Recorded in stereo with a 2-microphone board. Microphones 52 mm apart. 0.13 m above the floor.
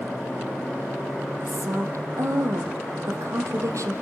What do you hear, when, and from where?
1.4 s a woman speaking: 70° right (ahead or behind), 4 m